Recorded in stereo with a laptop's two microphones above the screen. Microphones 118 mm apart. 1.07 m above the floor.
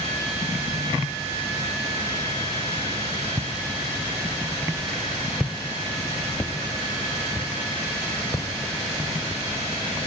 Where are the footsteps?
35° right (ahead or behind), 1.2 m; by 9.4 s 40° left (ahead or behind), 2.5 m.